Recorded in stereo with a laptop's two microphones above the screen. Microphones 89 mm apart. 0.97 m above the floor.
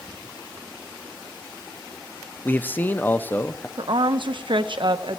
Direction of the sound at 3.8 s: 65° right (ahead or behind).